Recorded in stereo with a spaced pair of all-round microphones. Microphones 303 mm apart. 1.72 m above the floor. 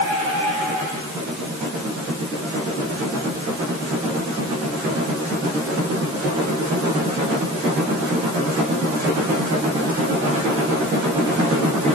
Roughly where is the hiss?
No hiss in this recording.